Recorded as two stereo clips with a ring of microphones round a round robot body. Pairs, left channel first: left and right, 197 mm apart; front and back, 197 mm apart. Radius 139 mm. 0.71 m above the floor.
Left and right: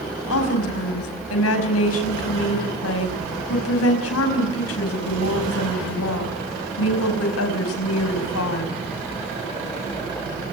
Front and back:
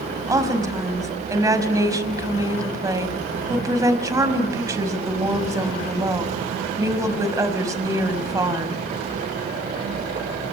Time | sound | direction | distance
0.3 | a woman speaking | 105° left | 5 m